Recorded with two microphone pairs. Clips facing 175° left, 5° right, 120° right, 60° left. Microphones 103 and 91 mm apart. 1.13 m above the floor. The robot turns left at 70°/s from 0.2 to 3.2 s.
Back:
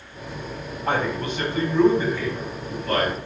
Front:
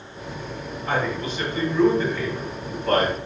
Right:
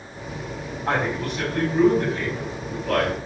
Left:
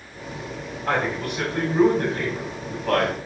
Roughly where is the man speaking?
Behind.